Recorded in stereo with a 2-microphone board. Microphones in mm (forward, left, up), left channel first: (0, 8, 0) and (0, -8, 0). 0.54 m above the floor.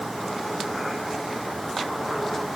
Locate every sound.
Only background noise.